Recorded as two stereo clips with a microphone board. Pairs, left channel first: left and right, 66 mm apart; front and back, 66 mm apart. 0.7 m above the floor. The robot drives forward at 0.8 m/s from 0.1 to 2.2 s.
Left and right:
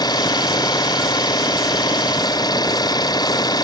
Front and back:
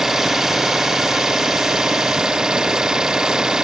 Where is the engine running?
95° left; by 3.6 s 100° left.